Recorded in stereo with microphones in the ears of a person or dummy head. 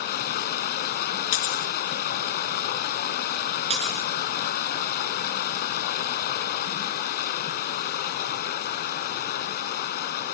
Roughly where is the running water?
Left.